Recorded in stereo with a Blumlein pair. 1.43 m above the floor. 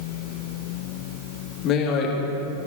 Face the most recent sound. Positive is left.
turn(degrees=35)